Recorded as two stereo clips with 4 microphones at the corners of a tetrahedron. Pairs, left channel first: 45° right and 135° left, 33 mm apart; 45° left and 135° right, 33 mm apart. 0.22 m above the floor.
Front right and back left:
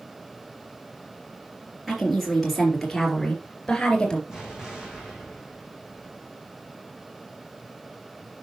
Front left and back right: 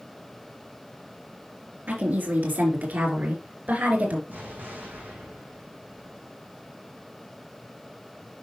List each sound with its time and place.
1.9 s a woman speaking: 140° right, 3.5 m; by 4.2 s 110° right, 3 m
4.3 s an explosion: 155° right, 4 m